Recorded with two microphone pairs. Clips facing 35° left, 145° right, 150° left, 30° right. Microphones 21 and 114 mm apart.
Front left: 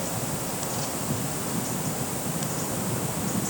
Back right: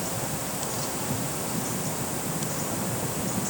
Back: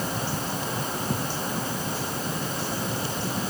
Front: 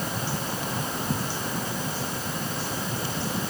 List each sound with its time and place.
Only background noise.